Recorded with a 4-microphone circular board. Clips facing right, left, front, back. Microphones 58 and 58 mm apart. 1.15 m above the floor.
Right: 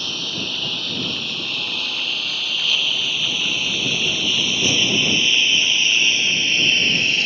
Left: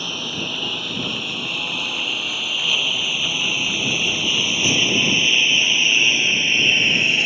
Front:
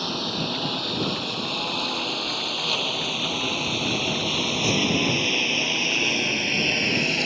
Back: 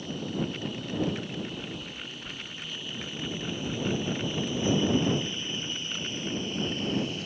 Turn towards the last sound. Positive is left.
turn(degrees=20)